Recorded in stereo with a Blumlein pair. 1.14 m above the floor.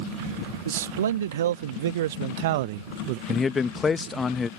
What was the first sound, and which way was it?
A man speaking, 65° right.